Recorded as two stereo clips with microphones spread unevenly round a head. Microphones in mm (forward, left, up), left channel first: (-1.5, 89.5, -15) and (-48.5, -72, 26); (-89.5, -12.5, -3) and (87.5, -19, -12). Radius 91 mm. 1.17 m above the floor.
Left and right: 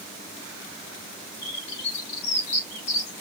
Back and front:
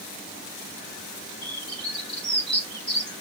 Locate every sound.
1.4 s a bird: 90° left, 3.5 m